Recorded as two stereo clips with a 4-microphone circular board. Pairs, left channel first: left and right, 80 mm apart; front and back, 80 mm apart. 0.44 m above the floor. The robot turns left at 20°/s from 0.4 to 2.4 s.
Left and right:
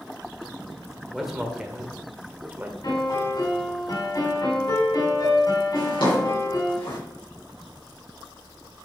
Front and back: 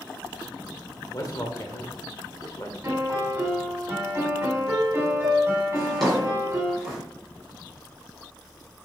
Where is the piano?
115° left, 3.5 m.